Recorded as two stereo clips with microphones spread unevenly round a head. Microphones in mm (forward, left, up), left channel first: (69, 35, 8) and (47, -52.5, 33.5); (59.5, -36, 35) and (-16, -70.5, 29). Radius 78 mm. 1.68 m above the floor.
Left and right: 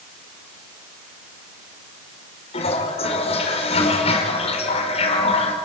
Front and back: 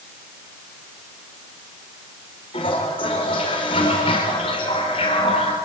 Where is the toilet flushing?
75° left, 5 m.